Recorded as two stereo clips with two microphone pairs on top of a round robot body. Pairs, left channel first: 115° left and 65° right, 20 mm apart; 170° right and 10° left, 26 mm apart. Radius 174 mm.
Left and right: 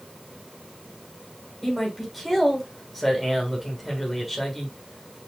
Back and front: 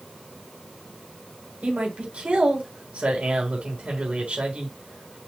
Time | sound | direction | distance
1.6 | a man speaking | 20° left | 3.5 m